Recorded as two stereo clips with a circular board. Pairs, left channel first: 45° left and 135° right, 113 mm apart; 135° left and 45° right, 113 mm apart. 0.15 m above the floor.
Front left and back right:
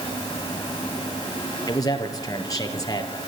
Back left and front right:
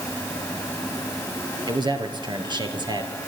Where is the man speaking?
5° right, 3 m.